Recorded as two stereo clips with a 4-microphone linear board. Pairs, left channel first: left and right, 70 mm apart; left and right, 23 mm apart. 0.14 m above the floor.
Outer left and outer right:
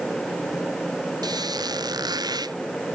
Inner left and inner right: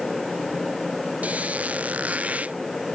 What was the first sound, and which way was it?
A squeak, 70° right (ahead or behind).